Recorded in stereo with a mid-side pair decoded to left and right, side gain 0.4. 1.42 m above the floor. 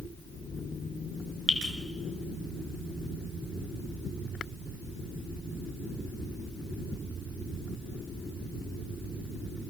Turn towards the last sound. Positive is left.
turn(degrees=15)